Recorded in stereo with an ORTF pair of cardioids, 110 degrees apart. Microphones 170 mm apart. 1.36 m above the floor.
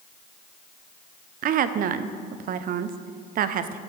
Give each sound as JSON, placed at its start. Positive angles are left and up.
{"t": 1.4, "sound": "a woman speaking", "azimuth_deg": -55, "distance_m": 0.5}